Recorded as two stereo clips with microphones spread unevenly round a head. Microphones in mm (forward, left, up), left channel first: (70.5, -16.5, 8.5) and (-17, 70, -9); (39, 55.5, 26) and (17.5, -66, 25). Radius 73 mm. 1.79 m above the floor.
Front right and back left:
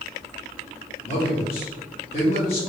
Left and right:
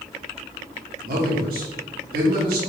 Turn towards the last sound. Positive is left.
turn(degrees=-95)